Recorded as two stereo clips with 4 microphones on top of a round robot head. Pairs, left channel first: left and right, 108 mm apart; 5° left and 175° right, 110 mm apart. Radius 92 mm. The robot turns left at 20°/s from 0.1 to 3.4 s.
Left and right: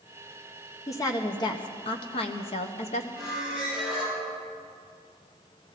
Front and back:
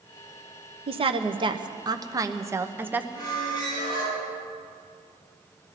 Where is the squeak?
60° left, 7.5 m; by 4.2 s 55° left, 7.5 m.